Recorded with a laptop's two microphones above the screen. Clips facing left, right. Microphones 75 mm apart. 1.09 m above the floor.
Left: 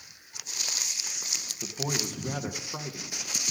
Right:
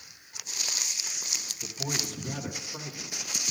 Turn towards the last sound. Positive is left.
turn(degrees=75)  # may be behind; listen again after turning